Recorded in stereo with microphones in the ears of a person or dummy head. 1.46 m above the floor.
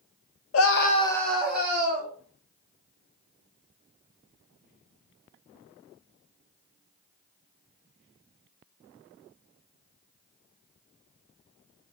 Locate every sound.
0.5 s a scream: 80° left, 0.7 m; by 2.1 s 20° right (ahead or behind), 2 m